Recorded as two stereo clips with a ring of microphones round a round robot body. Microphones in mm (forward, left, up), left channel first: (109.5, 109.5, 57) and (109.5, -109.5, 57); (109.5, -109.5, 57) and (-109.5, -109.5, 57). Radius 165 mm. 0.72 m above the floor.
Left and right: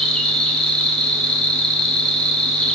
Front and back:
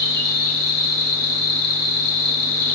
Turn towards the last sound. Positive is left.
turn(degrees=5)